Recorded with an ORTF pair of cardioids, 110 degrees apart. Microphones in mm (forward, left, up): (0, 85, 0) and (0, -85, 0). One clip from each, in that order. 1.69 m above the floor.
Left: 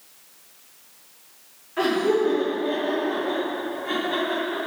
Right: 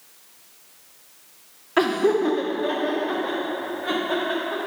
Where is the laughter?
60° right, 0.6 m.